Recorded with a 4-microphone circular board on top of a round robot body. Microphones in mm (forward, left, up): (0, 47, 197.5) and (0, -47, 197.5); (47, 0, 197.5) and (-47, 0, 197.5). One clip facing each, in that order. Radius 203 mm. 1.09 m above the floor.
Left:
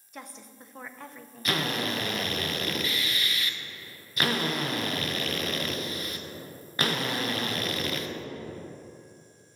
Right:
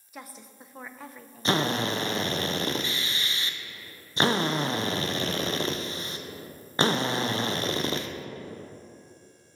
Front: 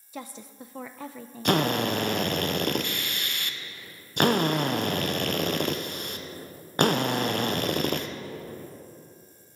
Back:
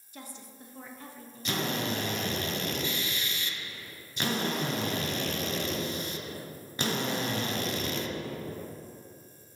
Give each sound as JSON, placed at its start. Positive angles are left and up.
{"t": 0.1, "sound": "a woman speaking", "azimuth_deg": -5, "distance_m": 0.6}
{"t": 1.4, "sound": "a drill", "azimuth_deg": -30, "distance_m": 0.9}